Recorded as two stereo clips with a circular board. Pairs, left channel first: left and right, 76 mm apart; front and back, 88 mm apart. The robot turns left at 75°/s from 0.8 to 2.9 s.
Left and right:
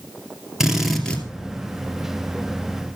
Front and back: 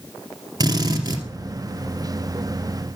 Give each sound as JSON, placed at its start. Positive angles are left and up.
{"t": 0.6, "sound": "a drill", "azimuth_deg": -175, "distance_m": 2.5}